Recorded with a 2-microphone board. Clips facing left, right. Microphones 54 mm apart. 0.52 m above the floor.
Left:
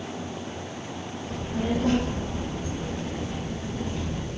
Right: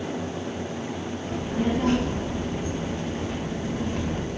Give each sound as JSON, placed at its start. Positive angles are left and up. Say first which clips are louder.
{"t": 1.2, "sound": "a child speaking", "louder": "right 2 dB", "side_deg": -75, "distance_m": 4.0}